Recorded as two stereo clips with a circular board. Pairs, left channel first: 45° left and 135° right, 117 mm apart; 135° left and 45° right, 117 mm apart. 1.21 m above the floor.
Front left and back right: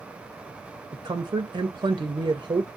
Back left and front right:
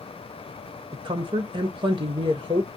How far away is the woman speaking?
About 0.5 m.